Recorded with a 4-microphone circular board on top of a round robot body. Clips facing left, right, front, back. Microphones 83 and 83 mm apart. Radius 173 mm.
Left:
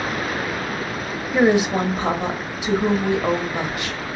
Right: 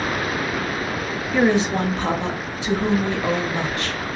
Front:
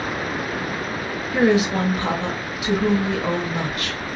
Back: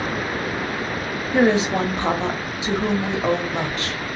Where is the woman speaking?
155° left, 1.3 m.